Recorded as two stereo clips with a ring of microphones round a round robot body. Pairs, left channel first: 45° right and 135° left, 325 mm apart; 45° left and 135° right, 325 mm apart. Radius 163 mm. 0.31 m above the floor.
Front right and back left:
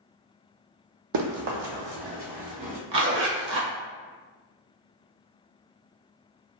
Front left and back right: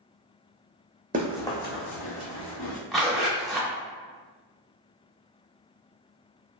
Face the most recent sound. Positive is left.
turn(degrees=135)